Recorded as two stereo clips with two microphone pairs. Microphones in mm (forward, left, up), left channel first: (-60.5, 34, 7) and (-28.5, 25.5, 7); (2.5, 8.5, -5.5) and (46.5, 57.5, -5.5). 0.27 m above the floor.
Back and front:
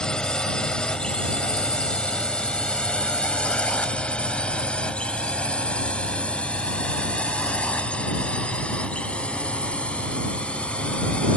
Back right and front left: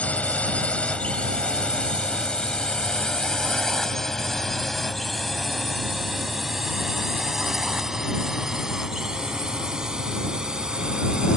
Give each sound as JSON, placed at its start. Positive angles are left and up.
{"t": 0.0, "sound": "a drone", "azimuth_deg": -170}